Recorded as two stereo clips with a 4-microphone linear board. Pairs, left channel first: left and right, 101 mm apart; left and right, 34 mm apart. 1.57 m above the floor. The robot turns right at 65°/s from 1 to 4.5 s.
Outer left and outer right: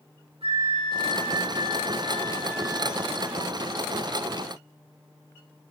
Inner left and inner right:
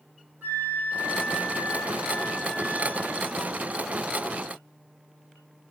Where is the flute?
70° right, 3 m; by 3.6 s 95° left, 3 m.